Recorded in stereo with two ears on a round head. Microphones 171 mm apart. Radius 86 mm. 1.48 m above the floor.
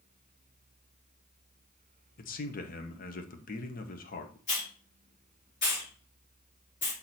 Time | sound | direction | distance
2.2 | a man speaking | 45° left (ahead or behind) | 1.2 m
4.5 | a hiss | 45° left (ahead or behind) | 4 m